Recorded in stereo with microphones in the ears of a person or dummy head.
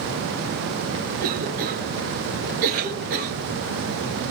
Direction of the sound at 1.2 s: 45° right (ahead or behind).